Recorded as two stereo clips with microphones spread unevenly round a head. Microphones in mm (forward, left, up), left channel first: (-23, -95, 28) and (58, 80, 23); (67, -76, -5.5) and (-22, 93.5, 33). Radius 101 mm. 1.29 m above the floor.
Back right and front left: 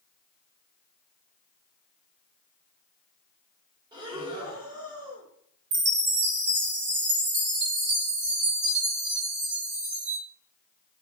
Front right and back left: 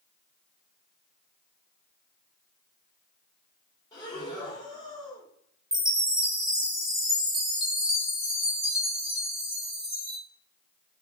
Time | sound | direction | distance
3.9 | breathing | straight ahead | 0.8 m
5.7 | a chime | 35° left | 0.9 m